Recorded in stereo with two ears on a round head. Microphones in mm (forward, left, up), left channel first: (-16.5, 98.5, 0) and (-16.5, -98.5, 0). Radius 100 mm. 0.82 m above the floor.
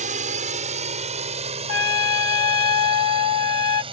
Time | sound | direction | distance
0.0 | a drone | 35° right (ahead or behind) | ?
1.7 | a trumpet | 75° left (ahead or behind) | ?